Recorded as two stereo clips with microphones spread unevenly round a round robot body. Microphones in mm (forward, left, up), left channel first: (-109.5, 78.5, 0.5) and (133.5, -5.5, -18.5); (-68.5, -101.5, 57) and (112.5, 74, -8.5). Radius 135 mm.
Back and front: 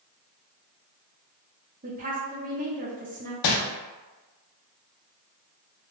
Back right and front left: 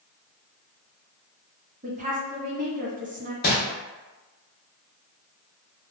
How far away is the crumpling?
About 0.5 m.